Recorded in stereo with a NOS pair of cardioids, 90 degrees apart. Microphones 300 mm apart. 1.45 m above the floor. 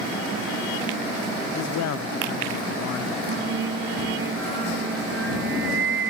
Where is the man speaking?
65° left.